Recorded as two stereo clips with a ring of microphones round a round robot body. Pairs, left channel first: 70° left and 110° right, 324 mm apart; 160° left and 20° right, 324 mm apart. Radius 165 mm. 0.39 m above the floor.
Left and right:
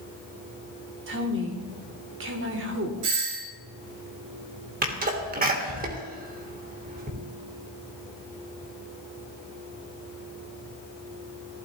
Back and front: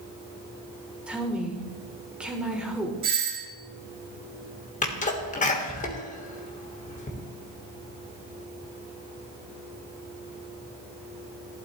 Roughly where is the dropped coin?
I don't hear a dropped coin.